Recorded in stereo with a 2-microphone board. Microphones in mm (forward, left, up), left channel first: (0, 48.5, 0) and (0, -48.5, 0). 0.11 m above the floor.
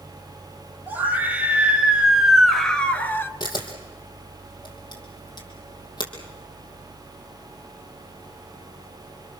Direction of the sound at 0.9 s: 20° right (ahead or behind).